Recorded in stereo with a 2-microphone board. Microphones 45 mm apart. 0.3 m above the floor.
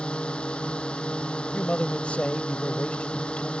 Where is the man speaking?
30° left (ahead or behind).